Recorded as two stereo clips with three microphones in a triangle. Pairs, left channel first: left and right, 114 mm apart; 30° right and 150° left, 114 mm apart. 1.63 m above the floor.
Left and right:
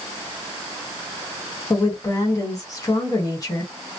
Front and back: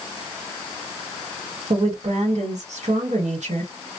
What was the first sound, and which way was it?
A woman speaking, 150° left.